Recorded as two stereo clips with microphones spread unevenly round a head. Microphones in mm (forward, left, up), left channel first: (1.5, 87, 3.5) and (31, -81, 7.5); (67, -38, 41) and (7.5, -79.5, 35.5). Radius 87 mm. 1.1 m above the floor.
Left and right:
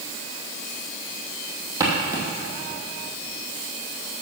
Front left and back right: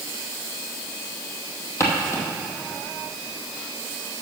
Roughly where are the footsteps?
Ahead.